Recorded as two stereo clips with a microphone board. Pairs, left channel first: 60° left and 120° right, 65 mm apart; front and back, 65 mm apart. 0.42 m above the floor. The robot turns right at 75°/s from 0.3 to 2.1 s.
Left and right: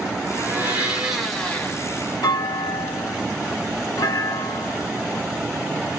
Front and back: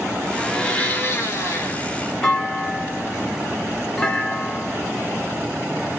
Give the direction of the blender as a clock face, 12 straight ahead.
3 o'clock.